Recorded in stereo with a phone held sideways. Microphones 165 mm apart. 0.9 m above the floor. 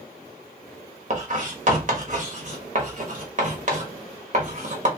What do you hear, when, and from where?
1.1 s writing: 50° right (ahead or behind), 1.0 m